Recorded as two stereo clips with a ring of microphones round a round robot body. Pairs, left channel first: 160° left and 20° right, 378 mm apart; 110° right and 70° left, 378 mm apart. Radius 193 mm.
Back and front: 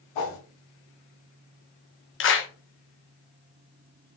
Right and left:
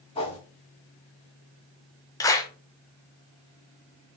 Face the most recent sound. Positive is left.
turn(degrees=175)